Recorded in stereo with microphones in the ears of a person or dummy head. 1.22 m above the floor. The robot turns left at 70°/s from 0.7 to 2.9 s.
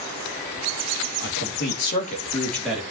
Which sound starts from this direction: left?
A man speaking, at 1.2 s.